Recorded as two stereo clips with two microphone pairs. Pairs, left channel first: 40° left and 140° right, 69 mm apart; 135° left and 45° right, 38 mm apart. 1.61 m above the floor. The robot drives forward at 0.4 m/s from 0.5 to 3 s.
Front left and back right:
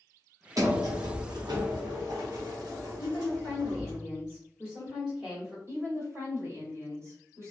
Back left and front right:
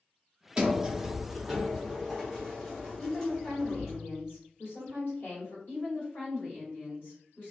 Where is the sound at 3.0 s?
145° left, 1.2 m.